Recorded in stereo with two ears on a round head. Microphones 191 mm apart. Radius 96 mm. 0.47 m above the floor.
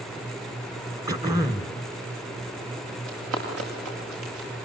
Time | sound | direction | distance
1.1 | throat clearing | 20° right (ahead or behind) | 1.3 m
3.1 | running footsteps | 75° right (ahead or behind) | 9 m